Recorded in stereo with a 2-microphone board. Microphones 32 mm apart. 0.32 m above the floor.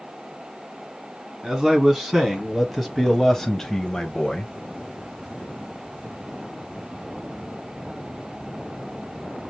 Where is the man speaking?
10° right (ahead or behind), 2.5 m; by 4.5 s 30° left (ahead or behind), 1.0 m.